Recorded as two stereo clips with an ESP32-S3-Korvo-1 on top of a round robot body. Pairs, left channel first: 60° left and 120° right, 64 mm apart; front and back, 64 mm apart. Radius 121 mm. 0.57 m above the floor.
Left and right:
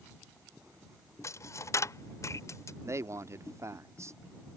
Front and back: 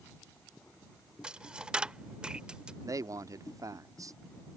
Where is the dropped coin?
100° left.